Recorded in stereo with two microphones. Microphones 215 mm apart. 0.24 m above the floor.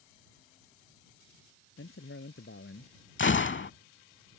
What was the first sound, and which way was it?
A man speaking, 75° left (ahead or behind).